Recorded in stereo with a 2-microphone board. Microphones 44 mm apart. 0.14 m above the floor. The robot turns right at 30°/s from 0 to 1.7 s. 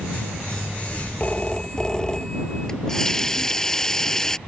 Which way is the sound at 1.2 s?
30° left (ahead or behind).